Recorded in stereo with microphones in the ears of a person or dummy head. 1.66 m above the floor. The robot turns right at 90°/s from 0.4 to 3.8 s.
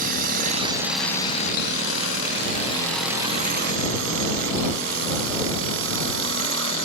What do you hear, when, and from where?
0.0 s a drone: 50° right (ahead or behind); by 6.8 s 70° right (ahead or behind)